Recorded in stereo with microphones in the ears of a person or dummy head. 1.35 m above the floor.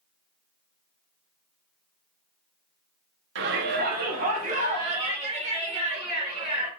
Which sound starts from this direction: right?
A shout, at 3.4 s.